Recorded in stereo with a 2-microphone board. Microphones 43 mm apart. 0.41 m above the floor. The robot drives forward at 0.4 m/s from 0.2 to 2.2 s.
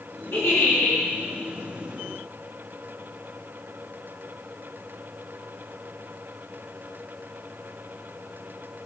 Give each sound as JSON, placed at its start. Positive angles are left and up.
{"t": 0.3, "sound": "a giggle", "side_deg": 65, "distance_m": 3.5}